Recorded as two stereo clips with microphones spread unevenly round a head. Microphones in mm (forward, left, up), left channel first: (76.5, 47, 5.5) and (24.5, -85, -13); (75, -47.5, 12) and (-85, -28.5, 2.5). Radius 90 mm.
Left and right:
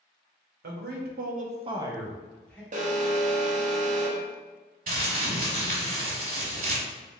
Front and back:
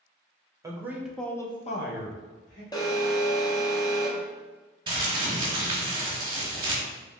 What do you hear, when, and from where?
0.6 s a man speaking: 115° right, 1.0 m; by 2.6 s 10° right, 1.0 m
2.7 s an alarm: 75° right, 0.8 m
4.9 s crumpling: 130° right, 1.4 m